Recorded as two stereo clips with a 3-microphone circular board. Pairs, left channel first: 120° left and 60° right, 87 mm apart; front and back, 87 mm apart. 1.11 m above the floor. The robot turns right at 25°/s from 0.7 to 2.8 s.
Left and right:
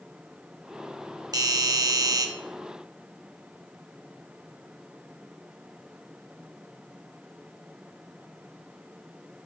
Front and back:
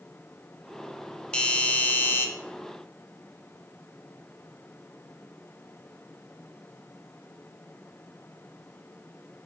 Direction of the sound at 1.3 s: 75° right.